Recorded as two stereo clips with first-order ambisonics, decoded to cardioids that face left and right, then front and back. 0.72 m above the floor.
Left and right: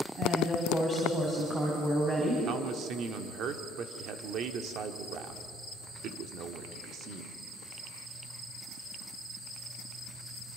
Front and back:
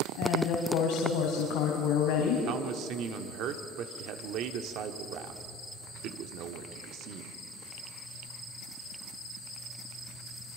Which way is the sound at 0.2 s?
15° right.